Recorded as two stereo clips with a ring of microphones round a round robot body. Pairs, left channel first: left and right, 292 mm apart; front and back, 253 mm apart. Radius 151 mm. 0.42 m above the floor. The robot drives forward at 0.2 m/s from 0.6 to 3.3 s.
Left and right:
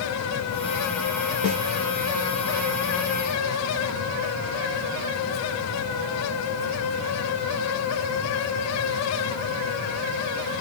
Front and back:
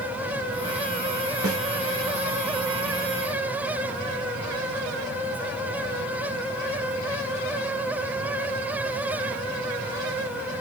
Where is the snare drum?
155° right, 2 m.